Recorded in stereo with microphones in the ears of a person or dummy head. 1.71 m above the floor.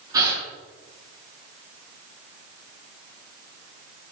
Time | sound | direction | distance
0.1 | a gasp | 20° right (ahead or behind) | 8 m